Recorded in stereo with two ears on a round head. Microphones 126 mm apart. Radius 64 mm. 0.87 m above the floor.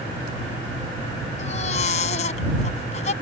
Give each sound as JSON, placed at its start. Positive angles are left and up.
{"t": 1.4, "sound": "a baby crying", "side_deg": 50}